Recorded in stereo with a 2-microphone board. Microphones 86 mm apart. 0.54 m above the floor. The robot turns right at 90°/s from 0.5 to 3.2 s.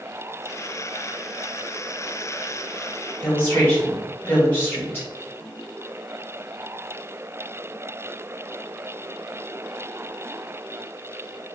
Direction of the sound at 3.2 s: 25° left (ahead or behind).